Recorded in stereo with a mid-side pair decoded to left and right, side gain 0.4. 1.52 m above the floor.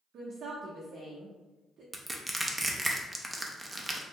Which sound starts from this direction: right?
A woman speaking, at 0.1 s.